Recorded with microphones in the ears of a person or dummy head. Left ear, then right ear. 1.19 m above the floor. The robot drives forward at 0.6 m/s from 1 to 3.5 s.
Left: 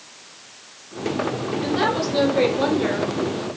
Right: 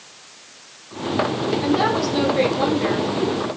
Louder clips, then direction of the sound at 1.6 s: Right 1 dB; centre (ahead or behind).